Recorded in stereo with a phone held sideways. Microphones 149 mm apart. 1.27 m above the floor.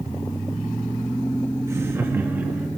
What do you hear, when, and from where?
1.7 s laughter: 20° right (ahead or behind), 1.9 m; by 2.7 s 10° right (ahead or behind), 2.5 m